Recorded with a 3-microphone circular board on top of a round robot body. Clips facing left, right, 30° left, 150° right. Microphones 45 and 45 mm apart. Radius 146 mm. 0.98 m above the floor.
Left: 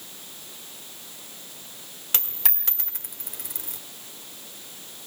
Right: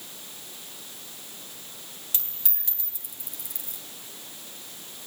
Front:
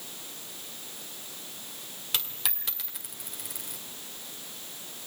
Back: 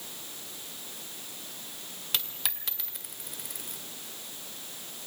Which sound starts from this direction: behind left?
A dropped coin, at 2.1 s.